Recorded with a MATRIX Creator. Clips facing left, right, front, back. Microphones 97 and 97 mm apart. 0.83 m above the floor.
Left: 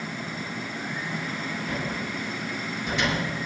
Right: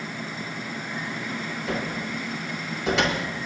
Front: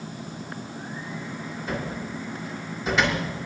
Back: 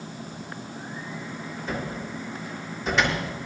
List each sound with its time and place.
1.7 s a cupboard door: 85° right, 6.5 m